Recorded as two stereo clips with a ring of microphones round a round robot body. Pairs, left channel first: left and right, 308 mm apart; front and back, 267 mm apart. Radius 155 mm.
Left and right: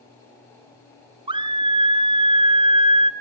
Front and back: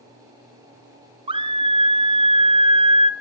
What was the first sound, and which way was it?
A scream, 140° right.